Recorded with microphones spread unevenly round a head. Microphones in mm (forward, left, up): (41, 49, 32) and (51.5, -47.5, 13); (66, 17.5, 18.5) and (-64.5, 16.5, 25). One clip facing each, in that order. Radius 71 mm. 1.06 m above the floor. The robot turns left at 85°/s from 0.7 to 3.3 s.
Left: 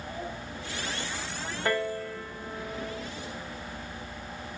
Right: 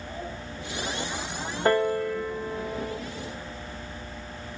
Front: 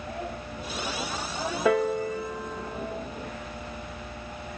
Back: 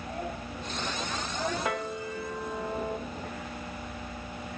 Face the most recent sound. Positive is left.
turn(degrees=-160)